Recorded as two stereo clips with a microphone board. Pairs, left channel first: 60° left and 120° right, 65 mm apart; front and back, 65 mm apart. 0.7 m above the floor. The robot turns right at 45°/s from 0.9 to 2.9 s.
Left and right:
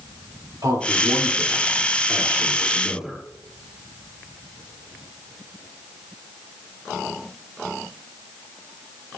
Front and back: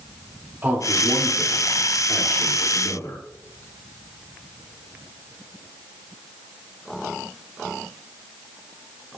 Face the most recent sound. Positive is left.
turn(degrees=-40)